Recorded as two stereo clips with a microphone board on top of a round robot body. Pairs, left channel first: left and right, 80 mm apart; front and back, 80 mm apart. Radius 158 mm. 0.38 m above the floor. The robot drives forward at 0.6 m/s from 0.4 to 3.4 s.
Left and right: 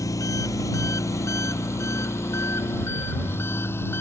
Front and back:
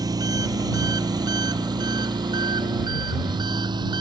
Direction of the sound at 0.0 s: 140° left.